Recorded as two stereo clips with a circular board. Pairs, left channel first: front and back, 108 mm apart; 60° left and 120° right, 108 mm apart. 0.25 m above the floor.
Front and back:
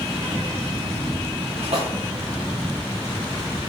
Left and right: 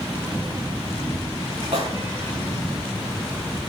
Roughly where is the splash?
Behind.